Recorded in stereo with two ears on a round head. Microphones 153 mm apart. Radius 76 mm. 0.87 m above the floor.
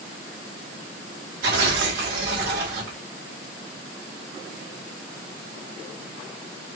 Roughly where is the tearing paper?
Right.